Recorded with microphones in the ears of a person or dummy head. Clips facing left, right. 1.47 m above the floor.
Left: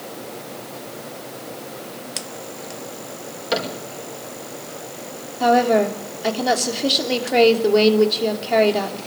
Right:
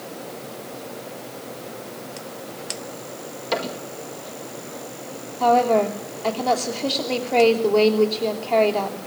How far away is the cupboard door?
About 5 m.